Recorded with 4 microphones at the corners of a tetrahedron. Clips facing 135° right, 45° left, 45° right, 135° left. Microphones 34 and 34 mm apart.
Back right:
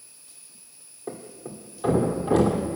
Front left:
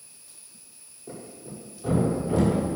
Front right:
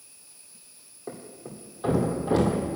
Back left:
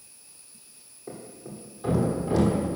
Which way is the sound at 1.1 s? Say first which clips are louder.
Back right 4 dB, front right 1 dB; 100° right.